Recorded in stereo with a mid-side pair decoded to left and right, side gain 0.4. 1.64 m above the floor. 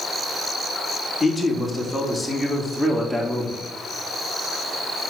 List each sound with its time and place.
1.2 s a man speaking: 10° left, 3.5 m; by 3.6 s 15° right, 4 m